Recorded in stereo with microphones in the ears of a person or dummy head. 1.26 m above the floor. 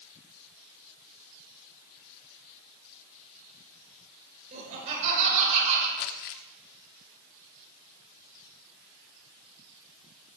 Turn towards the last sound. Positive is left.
turn(degrees=45)  # may be behind; listen again after turning